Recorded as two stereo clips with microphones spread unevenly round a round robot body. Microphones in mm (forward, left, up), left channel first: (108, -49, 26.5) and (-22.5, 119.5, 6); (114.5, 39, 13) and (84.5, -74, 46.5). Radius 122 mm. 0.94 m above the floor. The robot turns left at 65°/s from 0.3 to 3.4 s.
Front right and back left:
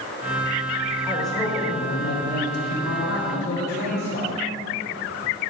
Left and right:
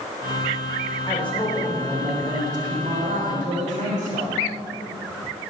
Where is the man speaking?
50° left, 3.5 m; by 4.4 s 105° right, 3.5 m.